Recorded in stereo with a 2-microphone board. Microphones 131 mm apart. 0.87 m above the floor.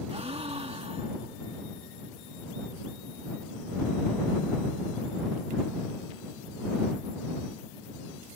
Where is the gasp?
50° right (ahead or behind).